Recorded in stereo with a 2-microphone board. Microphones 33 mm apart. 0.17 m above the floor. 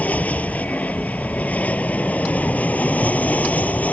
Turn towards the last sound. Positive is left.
turn(degrees=45)  # may be behind; listen again after turning